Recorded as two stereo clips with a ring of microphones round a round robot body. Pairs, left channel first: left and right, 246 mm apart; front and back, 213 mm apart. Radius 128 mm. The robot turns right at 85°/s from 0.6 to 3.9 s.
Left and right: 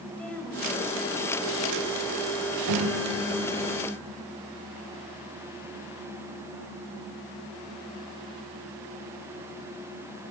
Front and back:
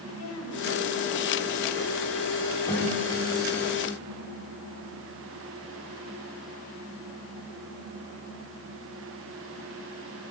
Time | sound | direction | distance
0.1 | a woman speaking | 5° left | 5.5 m
2.7 | a piano | 80° right | 2.5 m